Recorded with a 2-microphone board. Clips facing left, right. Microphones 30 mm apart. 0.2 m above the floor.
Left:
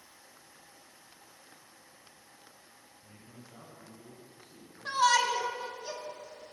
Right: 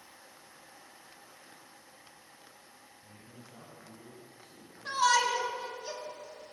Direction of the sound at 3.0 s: 10° left (ahead or behind).